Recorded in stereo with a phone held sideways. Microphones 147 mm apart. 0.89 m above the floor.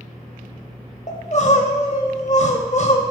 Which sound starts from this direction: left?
Crying, at 1.1 s.